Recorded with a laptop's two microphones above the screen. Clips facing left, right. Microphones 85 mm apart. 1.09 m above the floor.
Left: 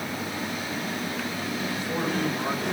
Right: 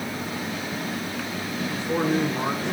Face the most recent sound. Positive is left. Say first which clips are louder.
# right 7 dB
turn(degrees=-30)  # may be behind; listen again after turning